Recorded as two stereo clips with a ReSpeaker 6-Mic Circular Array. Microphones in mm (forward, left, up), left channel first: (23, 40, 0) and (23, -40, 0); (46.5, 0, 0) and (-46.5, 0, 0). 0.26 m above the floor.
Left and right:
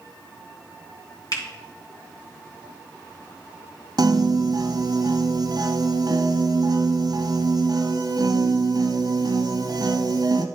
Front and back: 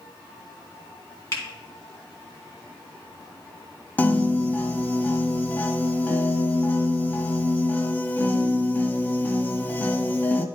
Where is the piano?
70° right, 0.9 m.